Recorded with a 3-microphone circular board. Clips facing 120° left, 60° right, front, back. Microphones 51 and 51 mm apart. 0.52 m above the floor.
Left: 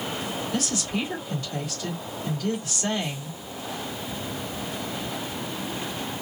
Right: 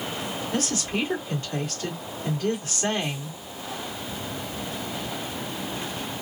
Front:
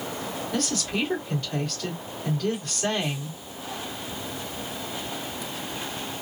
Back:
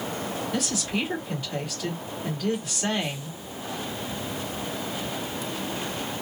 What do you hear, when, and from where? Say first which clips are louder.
0.5 s a woman speaking: right 2 dB, front 2 dB; 100° right, 1.7 m